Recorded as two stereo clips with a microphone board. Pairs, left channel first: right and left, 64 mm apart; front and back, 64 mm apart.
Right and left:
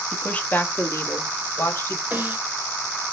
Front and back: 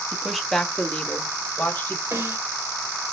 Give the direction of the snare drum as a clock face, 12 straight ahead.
7 o'clock.